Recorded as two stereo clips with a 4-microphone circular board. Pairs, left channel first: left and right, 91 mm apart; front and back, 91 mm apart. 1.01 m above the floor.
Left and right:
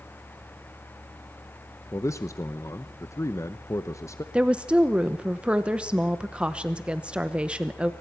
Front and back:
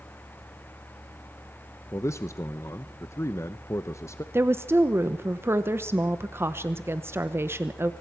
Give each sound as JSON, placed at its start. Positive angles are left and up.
{"t": 1.9, "sound": "a man speaking", "azimuth_deg": 45, "distance_m": 0.7}
{"t": 4.3, "sound": "a woman speaking", "azimuth_deg": -155, "distance_m": 0.8}